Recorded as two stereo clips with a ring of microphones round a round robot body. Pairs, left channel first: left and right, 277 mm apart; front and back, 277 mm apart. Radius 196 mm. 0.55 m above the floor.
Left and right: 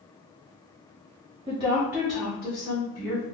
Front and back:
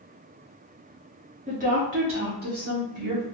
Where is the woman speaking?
140° right, 0.7 m; by 3.2 s 170° left, 1.4 m.